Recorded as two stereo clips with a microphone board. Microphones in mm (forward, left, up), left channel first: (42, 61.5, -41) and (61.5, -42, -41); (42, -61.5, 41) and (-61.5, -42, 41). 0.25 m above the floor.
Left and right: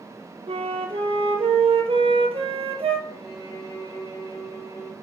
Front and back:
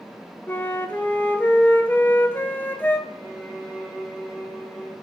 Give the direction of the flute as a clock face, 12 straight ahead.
3 o'clock.